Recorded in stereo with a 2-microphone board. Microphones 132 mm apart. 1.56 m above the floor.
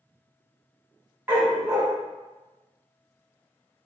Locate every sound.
1.3 s a dog barking: 15° right (ahead or behind), 1.9 m